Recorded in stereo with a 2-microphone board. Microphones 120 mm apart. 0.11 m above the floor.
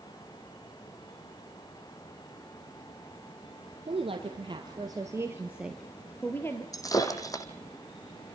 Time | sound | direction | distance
3.9 | a woman speaking | 55° right (ahead or behind) | 3.5 m
6.7 | breaking glass | 30° left (ahead or behind) | 2.5 m